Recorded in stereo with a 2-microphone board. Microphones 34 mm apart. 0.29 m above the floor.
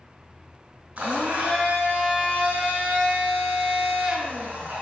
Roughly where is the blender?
Right.